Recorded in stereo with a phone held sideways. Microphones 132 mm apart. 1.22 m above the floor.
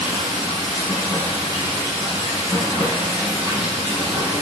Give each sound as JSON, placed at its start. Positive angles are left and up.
{"t": 0.0, "sound": "running water", "side_deg": -35, "distance_m": 2.0}